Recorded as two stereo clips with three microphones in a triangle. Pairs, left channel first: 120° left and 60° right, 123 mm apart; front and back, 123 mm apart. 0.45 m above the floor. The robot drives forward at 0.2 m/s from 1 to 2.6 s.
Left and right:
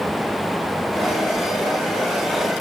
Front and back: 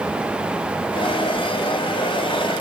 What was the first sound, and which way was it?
Only background noise.